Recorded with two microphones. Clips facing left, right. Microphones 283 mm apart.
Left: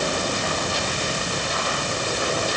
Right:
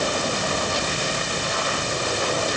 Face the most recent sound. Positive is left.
No sound to turn to.